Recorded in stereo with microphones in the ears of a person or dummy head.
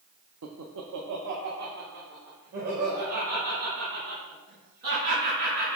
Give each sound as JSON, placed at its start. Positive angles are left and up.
{"t": 0.4, "sound": "laughter", "side_deg": -75, "distance_m": 0.6}